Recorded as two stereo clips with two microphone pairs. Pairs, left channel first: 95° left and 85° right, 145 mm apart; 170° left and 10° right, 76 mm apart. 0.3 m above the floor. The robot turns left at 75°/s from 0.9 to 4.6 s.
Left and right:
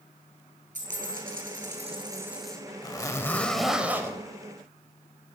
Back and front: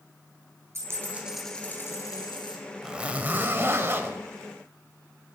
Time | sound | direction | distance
0.8 | a dropped coin | 60° right | 2.5 m
2.8 | a zipper | 65° left | 1.1 m